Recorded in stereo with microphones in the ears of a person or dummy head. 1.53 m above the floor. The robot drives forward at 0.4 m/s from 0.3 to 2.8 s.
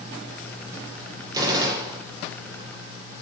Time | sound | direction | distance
1.3 | a gunshot | 25° right (ahead or behind) | 3 m